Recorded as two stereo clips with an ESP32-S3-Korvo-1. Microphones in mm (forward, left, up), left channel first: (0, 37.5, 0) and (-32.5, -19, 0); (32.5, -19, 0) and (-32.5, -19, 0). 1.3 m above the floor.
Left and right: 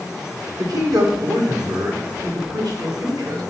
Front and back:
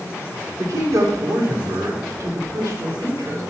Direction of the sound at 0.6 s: 140° right.